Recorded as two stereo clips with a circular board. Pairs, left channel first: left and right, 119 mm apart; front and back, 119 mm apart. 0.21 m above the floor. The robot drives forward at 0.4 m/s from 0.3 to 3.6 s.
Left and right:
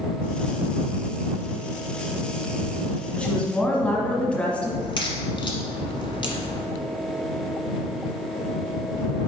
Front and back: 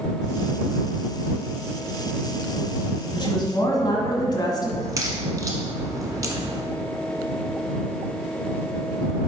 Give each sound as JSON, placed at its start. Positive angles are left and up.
{"t": 3.1, "sound": "a woman speaking", "azimuth_deg": 15, "distance_m": 1.4}
{"t": 4.8, "sound": "a crack", "azimuth_deg": 125, "distance_m": 1.1}